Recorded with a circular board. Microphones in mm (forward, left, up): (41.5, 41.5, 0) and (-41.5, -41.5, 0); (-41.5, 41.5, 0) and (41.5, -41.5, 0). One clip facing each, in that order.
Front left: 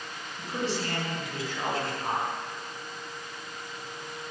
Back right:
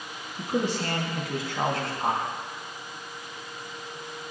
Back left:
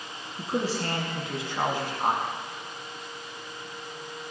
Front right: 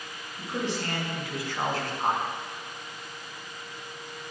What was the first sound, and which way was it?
A man speaking, 175° right.